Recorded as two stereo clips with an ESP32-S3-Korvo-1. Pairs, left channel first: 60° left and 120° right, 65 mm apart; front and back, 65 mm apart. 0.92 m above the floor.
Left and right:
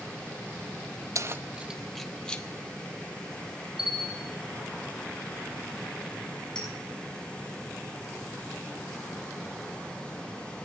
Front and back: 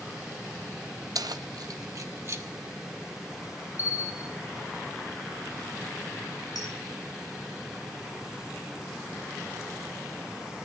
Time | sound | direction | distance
1.1 | keys jangling | 160° right | 0.6 m
3.8 | a bell | 35° right | 4 m
6.5 | a clink | 20° right | 5.5 m